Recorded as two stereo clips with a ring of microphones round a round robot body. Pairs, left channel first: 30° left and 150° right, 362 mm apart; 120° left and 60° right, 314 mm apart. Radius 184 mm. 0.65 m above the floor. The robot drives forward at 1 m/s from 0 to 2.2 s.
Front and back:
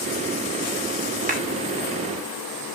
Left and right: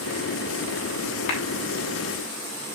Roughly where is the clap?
Behind left.